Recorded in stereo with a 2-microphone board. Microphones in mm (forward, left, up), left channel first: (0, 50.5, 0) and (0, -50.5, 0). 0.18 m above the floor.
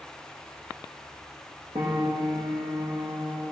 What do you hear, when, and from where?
1.8 s a piano: 50° right (ahead or behind), 5.5 m